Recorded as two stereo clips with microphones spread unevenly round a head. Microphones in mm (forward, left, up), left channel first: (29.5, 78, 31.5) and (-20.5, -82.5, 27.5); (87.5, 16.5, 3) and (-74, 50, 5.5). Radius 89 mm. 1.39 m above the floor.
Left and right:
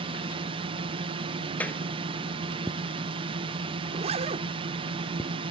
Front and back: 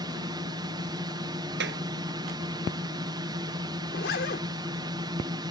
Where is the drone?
140° right.